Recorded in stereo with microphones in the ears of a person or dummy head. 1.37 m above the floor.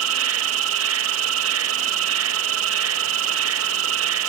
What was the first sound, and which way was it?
An insect, 80° right.